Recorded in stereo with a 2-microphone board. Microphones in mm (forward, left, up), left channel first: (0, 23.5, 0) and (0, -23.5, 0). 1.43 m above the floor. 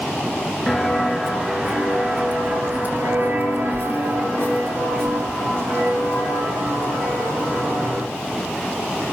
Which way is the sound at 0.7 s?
5° left (ahead or behind).